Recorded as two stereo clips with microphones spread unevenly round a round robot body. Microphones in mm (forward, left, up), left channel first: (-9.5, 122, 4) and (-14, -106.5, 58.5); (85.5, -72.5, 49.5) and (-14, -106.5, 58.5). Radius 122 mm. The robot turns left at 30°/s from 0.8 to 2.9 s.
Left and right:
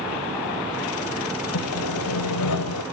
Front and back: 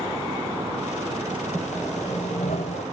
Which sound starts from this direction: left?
Sawing, at 1.5 s.